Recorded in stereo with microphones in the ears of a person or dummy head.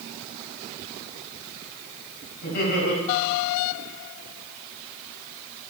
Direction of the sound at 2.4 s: 55° left (ahead or behind).